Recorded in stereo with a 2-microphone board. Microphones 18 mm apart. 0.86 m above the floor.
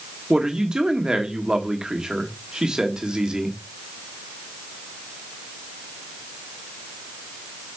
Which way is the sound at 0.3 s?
40° right (ahead or behind).